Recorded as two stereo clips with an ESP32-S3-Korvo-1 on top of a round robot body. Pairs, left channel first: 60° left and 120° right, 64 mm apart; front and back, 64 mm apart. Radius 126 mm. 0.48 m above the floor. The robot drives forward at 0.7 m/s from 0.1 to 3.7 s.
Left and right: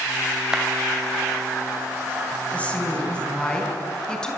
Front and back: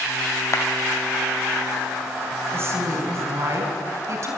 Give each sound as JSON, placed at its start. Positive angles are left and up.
{"t": 0.5, "sound": "a clap", "azimuth_deg": -40, "distance_m": 3.0}
{"t": 2.5, "sound": "a woman speaking", "azimuth_deg": 130, "distance_m": 4.0}